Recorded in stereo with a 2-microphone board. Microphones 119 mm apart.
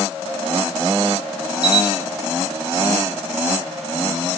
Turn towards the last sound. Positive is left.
turn(degrees=-60)  # may be behind; listen again after turning